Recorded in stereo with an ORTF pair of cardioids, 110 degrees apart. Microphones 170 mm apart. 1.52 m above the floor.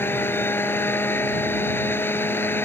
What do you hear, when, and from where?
0.0 s a machine running: 15° left